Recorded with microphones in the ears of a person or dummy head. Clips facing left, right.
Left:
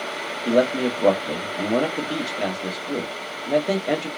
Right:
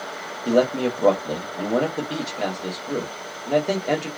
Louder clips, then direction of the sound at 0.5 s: Even; centre (ahead or behind).